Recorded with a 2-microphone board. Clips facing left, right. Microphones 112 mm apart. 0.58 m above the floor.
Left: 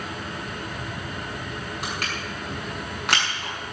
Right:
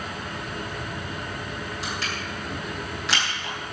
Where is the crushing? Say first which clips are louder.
Even; 60° left (ahead or behind), 7.5 m.